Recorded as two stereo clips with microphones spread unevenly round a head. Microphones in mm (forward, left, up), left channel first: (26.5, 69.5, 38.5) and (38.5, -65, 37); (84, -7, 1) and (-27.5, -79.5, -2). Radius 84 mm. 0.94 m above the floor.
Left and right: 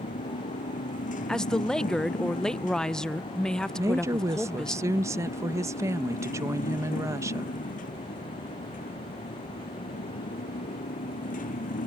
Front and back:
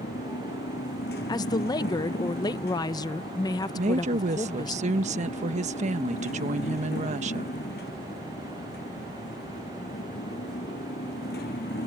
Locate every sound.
0.0 s a motorcycle: 70° left
1.3 s a woman speaking: 15° left
3.8 s a woman speaking: 150° right